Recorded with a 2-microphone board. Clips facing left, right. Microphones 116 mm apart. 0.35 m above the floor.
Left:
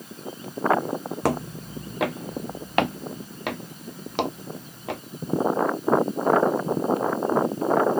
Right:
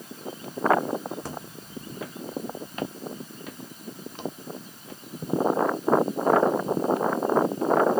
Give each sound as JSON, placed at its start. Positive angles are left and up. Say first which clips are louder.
{"t": 1.2, "sound": "footsteps", "louder": "left 12 dB", "side_deg": 75}